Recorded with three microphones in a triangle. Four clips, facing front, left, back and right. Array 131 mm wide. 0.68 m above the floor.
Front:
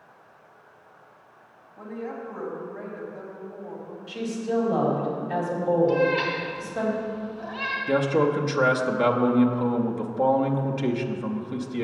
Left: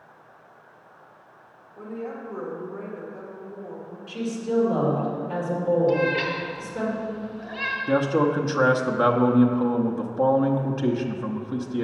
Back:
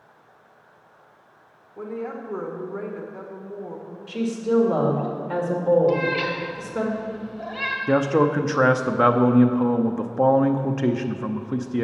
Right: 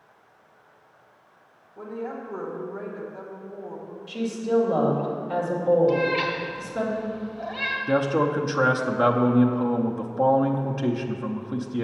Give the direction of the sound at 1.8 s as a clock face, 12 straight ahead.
6 o'clock.